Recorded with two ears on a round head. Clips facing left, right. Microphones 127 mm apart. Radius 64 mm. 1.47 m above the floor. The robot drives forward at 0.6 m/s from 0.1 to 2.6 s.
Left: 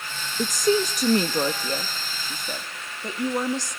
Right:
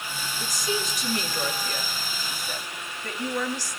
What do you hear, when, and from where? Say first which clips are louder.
0.4 s a woman speaking: left 10 dB; 45° left (ahead or behind), 1.4 m; by 3.8 s 20° left (ahead or behind), 2.5 m